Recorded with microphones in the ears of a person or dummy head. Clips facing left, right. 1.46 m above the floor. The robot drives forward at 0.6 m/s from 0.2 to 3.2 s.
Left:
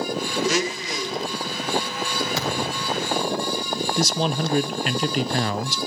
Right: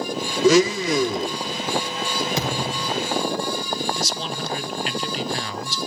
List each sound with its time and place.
0.4 s a blender: 70° right (ahead or behind), 0.6 m; by 1.4 s 40° right (ahead or behind), 0.9 m
2.4 s a thud: 20° right (ahead or behind), 5 m; by 3.0 s 25° right (ahead or behind), 4.5 m
4.0 s a man speaking: 45° left (ahead or behind), 0.8 m